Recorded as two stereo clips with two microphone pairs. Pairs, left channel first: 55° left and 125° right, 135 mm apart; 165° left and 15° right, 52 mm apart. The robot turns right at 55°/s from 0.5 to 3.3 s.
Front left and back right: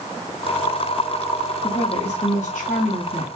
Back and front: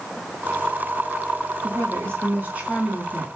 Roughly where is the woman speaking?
Ahead.